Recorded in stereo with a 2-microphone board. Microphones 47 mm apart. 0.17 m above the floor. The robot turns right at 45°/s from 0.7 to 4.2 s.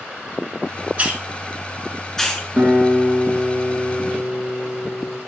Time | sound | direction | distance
1.0 | a hiss | 35° right (ahead or behind) | 1.2 m
2.6 | a guitar | 50° right | 2 m